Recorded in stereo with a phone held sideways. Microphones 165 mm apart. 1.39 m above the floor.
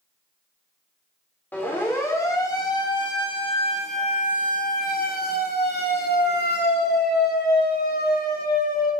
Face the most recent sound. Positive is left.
turn(degrees=65)  # may be behind; listen again after turning